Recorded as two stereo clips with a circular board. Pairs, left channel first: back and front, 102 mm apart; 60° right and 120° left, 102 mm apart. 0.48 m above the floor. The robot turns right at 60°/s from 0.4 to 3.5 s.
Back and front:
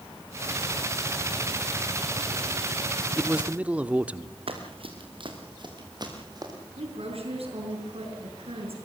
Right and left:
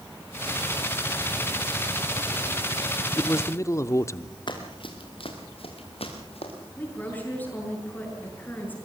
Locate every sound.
3.2 s a man speaking: 80° right, 0.7 m; by 4.4 s 60° right, 0.7 m
4.5 s running footsteps: 20° right, 3.5 m; by 6.5 s 50° right, 5 m
6.8 s a woman speaking: 15° left, 7 m